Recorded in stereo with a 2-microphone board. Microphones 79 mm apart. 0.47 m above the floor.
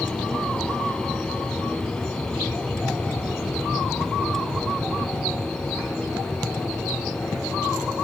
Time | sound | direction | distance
0.0 | an aircraft | 10° left (ahead or behind) | ?